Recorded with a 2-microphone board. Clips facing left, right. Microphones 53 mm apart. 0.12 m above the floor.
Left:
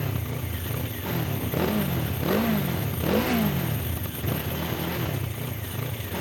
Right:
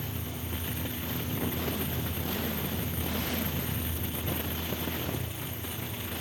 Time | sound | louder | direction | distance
0.0 | a motorcycle | left 6 dB | 85° left | ?